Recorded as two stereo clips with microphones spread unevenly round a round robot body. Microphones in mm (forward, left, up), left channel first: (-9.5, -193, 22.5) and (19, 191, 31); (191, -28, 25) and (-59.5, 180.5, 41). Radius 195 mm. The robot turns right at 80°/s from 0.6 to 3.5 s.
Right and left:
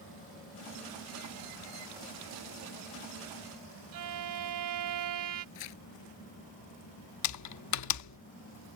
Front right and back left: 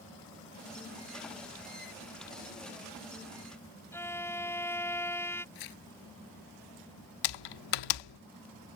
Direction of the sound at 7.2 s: 45° right.